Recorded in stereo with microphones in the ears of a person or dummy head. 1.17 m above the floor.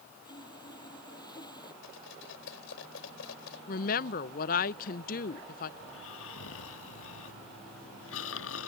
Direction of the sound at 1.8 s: 75° left (ahead or behind).